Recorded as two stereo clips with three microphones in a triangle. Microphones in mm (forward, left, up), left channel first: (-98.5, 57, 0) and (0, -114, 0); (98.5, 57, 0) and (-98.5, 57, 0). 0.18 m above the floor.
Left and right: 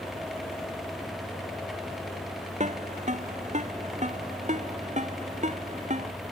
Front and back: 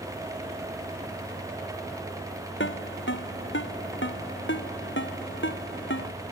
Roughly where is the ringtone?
Ahead.